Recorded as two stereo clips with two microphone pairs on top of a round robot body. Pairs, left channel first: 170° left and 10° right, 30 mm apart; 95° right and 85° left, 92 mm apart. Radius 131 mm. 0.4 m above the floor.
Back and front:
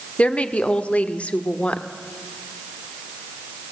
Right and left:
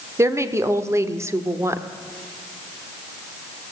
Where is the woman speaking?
135° left, 1.5 m.